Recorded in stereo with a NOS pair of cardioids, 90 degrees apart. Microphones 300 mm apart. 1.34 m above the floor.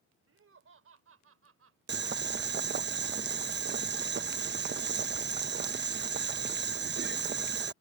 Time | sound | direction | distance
0.3 | laughter | 45° right | ?
1.9 | boiling | 35° right | ?